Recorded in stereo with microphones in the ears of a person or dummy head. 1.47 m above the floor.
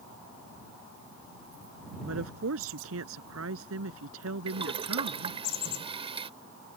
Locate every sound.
2.0 s a woman speaking: 85° right
4.5 s boiling: 30° right (ahead or behind)